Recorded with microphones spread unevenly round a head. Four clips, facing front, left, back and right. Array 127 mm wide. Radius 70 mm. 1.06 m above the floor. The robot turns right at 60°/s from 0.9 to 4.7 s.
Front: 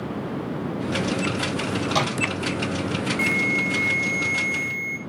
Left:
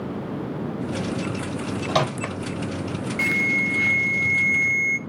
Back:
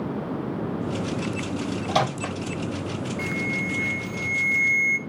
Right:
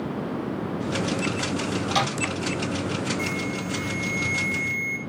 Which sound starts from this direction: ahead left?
An alarm, at 3.2 s.